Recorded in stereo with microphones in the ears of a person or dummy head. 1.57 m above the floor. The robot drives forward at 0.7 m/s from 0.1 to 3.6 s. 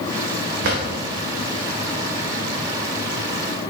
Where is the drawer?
60° right (ahead or behind), 2.5 m.